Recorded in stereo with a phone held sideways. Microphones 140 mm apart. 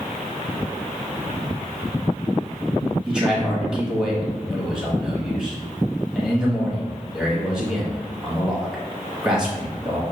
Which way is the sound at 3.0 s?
5° right (ahead or behind).